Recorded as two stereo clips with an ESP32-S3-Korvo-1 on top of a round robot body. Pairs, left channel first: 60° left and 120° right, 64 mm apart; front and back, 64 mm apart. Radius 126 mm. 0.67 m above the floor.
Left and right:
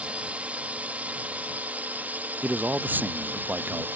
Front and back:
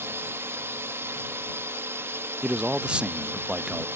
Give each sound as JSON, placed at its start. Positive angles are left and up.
{"t": 0.0, "sound": "a drone", "azimuth_deg": -175}
{"t": 2.4, "sound": "a man speaking", "azimuth_deg": -120}